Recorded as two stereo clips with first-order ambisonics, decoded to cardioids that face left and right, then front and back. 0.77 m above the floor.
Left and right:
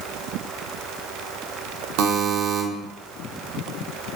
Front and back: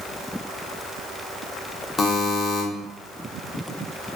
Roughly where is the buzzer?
Right.